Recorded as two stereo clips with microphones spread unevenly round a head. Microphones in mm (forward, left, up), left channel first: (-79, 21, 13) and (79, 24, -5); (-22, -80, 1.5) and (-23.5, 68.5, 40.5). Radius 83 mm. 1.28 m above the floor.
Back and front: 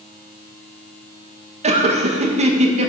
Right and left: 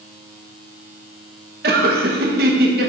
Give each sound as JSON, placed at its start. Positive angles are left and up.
{"t": 1.6, "sound": "laughter", "azimuth_deg": 55, "distance_m": 1.0}